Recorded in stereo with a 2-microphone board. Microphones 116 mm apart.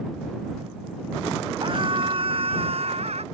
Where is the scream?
45° right (ahead or behind); by 3.2 s 60° right (ahead or behind).